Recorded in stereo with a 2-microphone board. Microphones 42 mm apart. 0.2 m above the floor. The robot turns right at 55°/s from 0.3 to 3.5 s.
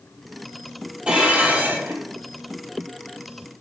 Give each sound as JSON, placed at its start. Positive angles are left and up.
{"t": 1.1, "sound": "dishes clattering", "azimuth_deg": -155, "distance_m": 4.0}